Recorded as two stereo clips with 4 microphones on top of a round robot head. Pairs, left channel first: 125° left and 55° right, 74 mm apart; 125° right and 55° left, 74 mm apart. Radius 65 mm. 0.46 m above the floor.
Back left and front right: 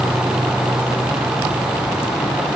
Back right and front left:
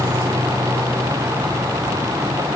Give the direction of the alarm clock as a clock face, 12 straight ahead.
No alarm clock in this recording.